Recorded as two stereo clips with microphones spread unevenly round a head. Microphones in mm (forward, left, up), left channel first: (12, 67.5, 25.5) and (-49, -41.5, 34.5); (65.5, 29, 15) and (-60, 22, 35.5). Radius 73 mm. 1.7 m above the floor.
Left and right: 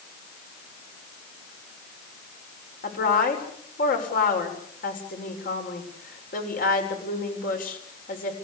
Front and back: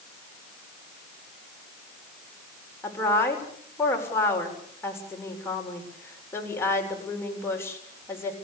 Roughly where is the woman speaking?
Left.